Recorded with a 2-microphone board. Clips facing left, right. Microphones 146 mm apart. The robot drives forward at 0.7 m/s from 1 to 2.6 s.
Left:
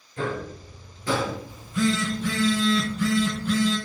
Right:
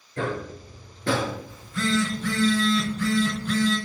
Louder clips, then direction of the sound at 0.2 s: Even; 70° right (ahead or behind).